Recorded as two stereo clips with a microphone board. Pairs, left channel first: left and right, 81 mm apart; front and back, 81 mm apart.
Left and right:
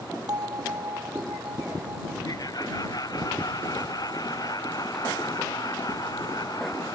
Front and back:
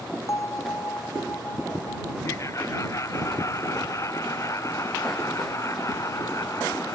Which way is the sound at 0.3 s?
55° right.